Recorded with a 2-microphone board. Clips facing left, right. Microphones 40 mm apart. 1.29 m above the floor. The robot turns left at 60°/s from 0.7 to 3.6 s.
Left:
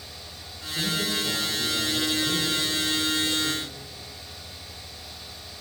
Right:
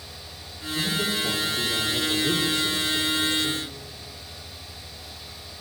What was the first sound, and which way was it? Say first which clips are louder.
A man speaking: right 1 dB; 5° left.